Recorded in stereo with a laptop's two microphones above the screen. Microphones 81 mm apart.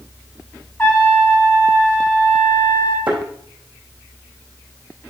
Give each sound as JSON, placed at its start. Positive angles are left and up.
{"t": 0.8, "sound": "a trumpet", "side_deg": 20, "distance_m": 2.0}
{"t": 3.1, "sound": "a thud", "side_deg": -75, "distance_m": 4.0}